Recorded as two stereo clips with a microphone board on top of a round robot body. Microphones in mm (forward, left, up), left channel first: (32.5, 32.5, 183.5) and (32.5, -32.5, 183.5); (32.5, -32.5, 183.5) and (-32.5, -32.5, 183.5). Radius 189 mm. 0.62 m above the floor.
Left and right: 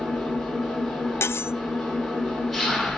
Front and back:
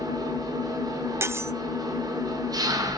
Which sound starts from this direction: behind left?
Cutlery clinking, at 1.2 s.